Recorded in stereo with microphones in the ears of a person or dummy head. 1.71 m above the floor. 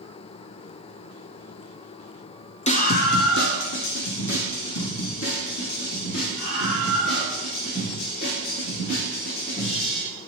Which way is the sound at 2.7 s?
30° left (ahead or behind).